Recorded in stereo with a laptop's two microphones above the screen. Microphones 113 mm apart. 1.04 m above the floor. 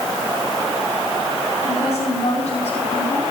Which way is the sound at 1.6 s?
75° left (ahead or behind).